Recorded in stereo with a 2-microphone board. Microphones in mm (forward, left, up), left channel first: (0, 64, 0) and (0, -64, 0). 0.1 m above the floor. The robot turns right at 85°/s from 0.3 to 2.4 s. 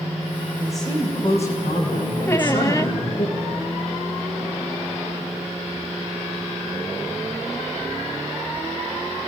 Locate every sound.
0.6 s a woman speaking: 15° right, 6 m; by 3.3 s 140° left, 6 m
2.3 s a squeak: 20° left (ahead or behind), 0.7 m; by 3.0 s 25° left (ahead or behind), 0.7 m